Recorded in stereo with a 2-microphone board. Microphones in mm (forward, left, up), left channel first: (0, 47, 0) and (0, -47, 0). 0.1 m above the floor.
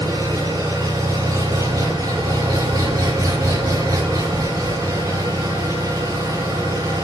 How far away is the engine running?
About 8.5 m.